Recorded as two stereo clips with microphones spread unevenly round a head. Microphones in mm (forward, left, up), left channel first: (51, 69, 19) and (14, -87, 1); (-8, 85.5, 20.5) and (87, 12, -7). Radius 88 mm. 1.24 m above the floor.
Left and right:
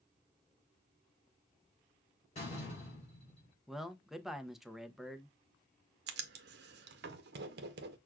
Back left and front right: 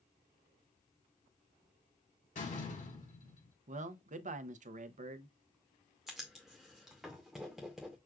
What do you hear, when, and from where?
2.4 s a door slam: 135° left, 3.5 m
3.7 s a man speaking: 15° right, 0.6 m
6.1 s writing: 120° right, 0.7 m